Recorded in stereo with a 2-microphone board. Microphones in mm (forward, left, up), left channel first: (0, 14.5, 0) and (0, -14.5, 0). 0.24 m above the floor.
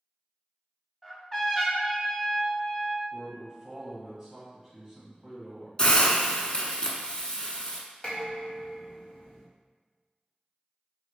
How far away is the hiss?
About 0.6 m.